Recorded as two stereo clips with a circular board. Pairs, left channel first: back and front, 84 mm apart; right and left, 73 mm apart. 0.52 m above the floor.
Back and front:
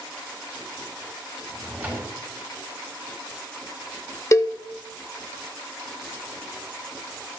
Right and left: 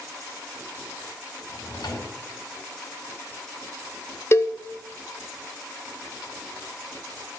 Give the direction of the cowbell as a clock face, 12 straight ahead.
4 o'clock.